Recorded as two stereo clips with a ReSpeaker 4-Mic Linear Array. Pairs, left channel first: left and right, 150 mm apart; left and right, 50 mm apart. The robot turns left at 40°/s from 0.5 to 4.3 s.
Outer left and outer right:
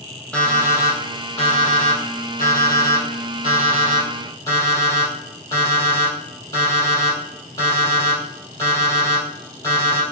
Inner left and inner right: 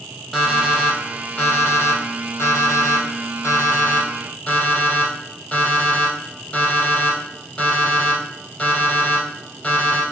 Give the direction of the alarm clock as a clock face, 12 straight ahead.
6 o'clock.